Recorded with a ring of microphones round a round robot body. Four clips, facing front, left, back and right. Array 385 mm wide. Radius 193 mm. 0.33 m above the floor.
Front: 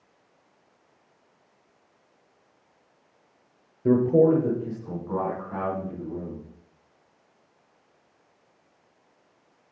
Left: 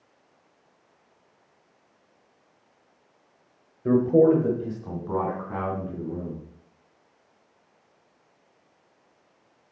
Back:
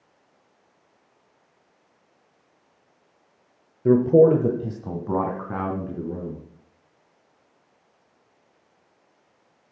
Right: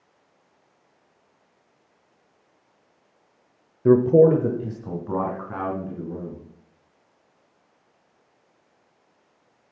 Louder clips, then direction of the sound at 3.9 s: Right 4 dB, back 4 dB; 100° right.